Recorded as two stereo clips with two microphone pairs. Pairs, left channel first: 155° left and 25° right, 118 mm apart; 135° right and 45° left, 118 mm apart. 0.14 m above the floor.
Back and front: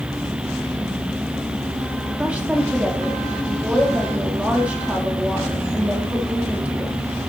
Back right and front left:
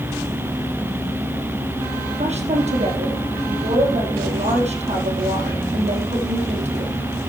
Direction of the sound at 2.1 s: 55° left.